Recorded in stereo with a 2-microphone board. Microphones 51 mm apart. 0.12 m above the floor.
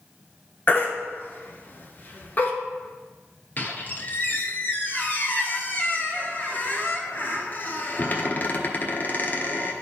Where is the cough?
I don't hear a cough.